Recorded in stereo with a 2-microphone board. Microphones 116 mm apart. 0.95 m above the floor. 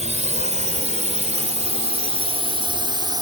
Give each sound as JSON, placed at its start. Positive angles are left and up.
{"t": 0.0, "sound": "a drone", "side_deg": -80}